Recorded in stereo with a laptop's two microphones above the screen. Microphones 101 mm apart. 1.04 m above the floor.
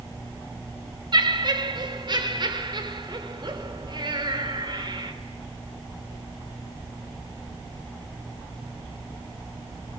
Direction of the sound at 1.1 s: 50° right (ahead or behind).